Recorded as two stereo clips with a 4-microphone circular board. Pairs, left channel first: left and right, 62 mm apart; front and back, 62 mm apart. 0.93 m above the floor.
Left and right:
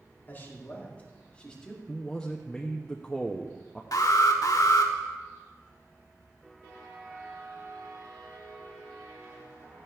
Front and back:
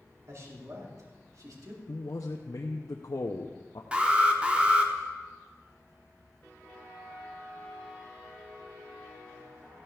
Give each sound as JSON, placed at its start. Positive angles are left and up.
{"t": 0.3, "sound": "a man speaking", "azimuth_deg": 145, "distance_m": 2.5}
{"t": 1.9, "sound": "a man speaking", "azimuth_deg": 10, "distance_m": 0.7}
{"t": 3.9, "sound": "an alarm", "azimuth_deg": 110, "distance_m": 1.2}